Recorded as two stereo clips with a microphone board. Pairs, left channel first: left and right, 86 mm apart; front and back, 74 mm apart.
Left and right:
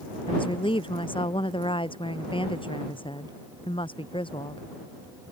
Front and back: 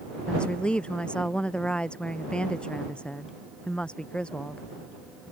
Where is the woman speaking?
75° left.